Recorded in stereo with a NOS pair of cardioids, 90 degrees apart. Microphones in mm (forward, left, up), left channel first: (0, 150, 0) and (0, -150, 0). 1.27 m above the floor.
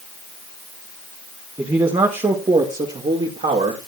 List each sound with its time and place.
1.6 s a man speaking: 15° right, 1.7 m; by 3.9 s 35° right, 3 m